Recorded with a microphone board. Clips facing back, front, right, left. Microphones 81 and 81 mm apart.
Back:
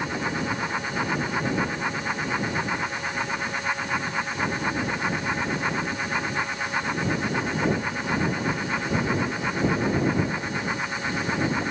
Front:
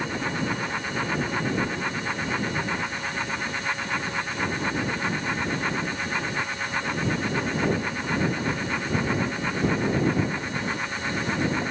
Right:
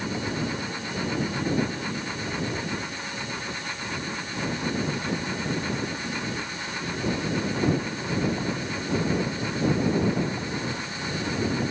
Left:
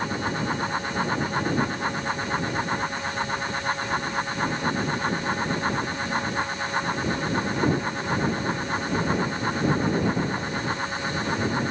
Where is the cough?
No cough in this recording.